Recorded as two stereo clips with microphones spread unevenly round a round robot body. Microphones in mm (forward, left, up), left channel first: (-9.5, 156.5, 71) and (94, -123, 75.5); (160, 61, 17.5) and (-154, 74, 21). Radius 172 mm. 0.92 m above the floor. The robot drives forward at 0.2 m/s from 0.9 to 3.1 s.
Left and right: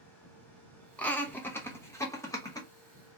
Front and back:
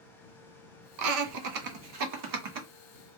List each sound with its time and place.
1.0 s laughter: 165° right, 0.6 m; by 2.7 s 170° right, 0.9 m